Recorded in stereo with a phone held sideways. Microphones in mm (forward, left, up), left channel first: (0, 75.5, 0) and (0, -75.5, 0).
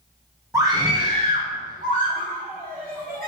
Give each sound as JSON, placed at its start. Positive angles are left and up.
{"t": 0.5, "sound": "a scream", "side_deg": -20, "distance_m": 1.9}